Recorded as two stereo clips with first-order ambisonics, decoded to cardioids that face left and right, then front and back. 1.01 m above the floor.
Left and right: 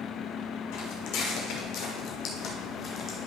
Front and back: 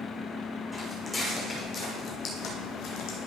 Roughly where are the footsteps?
Left.